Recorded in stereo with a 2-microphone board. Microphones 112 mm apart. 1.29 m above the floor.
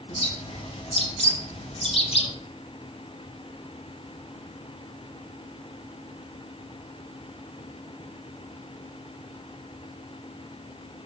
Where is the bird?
60° left (ahead or behind), 1.4 m.